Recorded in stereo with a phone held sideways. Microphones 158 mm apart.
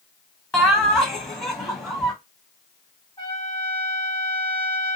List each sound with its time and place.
0.5 s laughter: 15° left (ahead or behind), 0.9 m
3.2 s a trumpet: 35° left (ahead or behind), 1.4 m